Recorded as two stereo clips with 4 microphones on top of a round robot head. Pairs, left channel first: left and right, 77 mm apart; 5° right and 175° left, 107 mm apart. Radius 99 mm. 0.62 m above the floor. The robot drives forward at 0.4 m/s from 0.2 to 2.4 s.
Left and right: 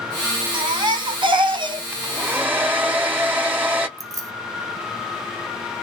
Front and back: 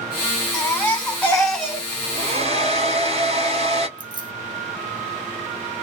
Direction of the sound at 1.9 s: 160° right.